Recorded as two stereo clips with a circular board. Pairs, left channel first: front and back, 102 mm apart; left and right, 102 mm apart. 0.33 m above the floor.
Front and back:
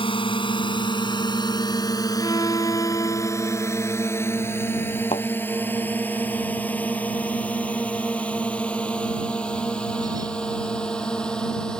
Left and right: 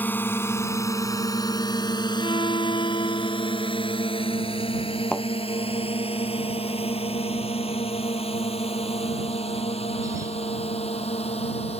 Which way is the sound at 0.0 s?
20° left.